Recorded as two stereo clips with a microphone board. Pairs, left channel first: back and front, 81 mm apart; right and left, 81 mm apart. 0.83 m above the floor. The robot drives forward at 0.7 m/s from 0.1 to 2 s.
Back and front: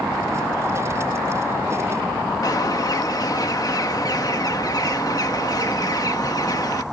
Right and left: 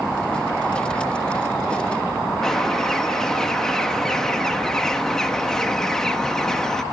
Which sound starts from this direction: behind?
A bird, at 2.4 s.